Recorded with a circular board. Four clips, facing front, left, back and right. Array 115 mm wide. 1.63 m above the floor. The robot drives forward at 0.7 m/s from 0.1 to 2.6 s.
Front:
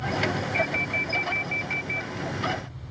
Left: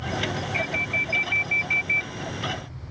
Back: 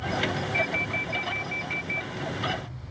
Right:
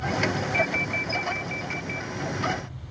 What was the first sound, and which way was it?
An alarm, 65° left.